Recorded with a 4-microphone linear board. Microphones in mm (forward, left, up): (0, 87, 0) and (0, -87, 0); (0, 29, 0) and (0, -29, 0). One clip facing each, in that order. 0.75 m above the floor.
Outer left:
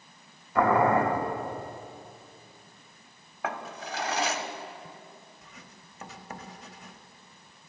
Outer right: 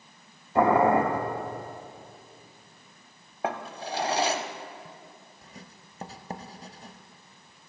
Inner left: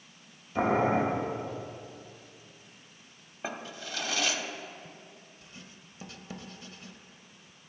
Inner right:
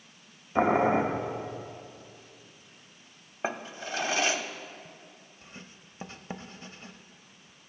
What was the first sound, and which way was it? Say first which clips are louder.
Boiling: outer right 2 dB, inner right 2 dB; 30° right (ahead or behind).